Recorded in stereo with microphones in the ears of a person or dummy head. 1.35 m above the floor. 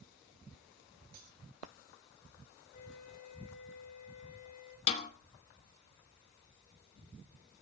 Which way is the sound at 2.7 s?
50° left (ahead or behind).